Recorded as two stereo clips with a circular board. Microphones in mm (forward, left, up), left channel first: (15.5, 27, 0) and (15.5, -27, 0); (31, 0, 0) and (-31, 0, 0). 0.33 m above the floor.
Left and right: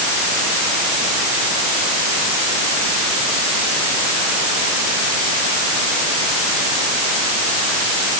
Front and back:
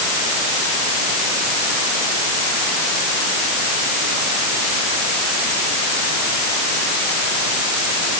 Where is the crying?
No crying in this recording.